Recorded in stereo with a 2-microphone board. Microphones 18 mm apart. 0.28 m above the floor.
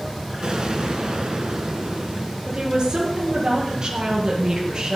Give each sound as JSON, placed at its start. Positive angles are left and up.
{"t": 0.4, "sound": "an explosion", "side_deg": -50, "distance_m": 2.0}
{"t": 2.5, "sound": "a woman speaking", "side_deg": -45, "distance_m": 4.5}